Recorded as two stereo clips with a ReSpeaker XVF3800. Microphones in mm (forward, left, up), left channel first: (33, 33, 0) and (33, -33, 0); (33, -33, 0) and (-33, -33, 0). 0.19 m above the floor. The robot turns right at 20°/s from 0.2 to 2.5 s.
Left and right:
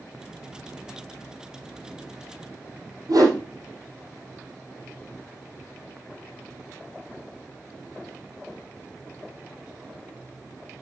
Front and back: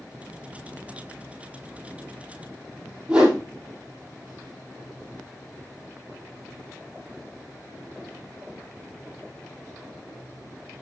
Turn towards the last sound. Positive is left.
turn(degrees=-105)